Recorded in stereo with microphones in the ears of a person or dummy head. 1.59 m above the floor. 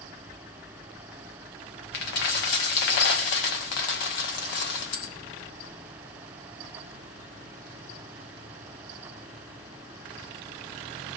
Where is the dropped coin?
55° left (ahead or behind), 1.4 m.